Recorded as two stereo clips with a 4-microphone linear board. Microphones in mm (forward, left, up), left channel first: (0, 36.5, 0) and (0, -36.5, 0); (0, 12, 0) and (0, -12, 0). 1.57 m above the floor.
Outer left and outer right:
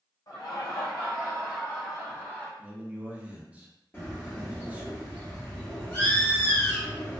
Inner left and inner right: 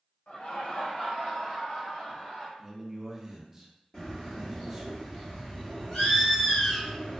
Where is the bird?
25° left (ahead or behind), 1.0 m.